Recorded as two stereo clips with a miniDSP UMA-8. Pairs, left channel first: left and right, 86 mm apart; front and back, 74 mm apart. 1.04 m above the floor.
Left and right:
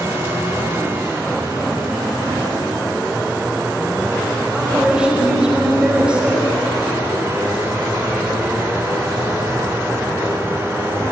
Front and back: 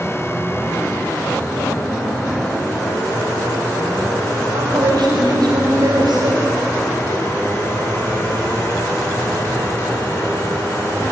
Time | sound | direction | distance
4.5 | a woman speaking | 165° right | 4.5 m